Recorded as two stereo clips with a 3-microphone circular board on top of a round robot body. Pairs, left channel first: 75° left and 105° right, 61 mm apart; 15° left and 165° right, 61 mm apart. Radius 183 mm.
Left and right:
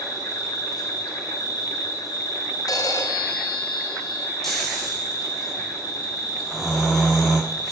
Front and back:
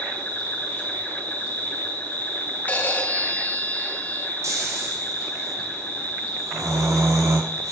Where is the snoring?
160° left, 3.5 m.